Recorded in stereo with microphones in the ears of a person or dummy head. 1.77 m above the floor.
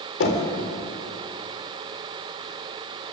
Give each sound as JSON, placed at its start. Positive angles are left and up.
{"t": 0.2, "sound": "knocking", "side_deg": 65, "distance_m": 3.5}